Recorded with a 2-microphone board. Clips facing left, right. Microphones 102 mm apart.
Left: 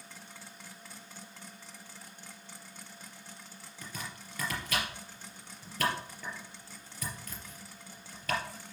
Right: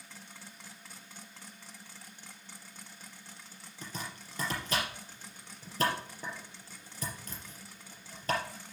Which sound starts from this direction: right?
Chopping, at 3.8 s.